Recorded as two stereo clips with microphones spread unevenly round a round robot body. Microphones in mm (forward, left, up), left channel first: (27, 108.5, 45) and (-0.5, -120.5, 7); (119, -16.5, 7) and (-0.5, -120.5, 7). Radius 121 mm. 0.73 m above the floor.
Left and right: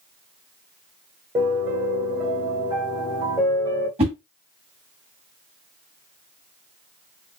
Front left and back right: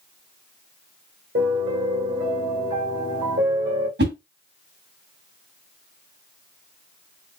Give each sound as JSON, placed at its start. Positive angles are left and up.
{"t": 1.4, "sound": "a piano", "azimuth_deg": -175, "distance_m": 1.3}
{"t": 4.0, "sound": "a whoosh", "azimuth_deg": -165, "distance_m": 1.9}